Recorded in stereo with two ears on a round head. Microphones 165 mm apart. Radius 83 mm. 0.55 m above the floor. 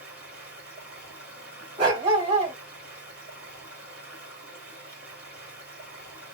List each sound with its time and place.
0.0 s running water: 5° right (ahead or behind), 2 m
1.8 s a dog barking: 25° right (ahead or behind), 1.3 m